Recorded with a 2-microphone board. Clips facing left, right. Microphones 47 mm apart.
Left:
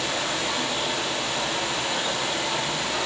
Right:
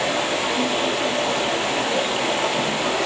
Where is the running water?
65° right (ahead or behind), 7.5 m.